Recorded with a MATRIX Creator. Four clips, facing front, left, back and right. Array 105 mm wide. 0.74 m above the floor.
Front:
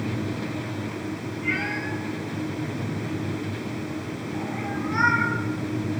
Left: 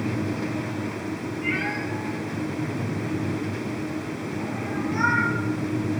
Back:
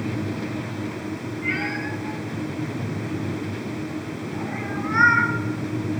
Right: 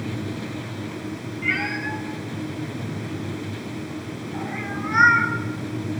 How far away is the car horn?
No car horn in this recording.